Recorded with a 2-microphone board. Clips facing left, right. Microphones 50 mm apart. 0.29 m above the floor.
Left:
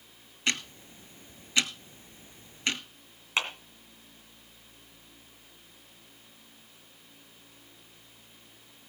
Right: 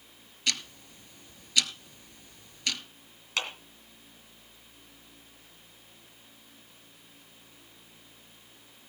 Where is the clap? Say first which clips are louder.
Left 3 dB; 25° left (ahead or behind), 2 m.